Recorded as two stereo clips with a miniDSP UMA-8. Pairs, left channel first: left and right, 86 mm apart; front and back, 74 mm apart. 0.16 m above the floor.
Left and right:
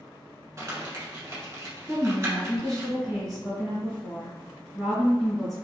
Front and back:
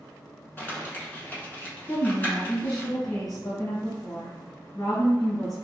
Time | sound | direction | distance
0.6 | crumpling | 55° right | 1.1 m
1.9 | a woman speaking | 5° right | 1.7 m